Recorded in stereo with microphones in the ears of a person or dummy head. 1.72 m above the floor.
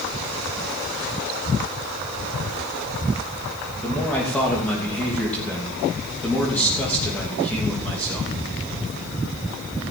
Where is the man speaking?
10° left (ahead or behind), 3 m.